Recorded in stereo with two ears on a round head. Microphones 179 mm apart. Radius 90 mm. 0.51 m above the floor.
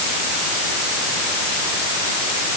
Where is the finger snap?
No finger snap in this recording.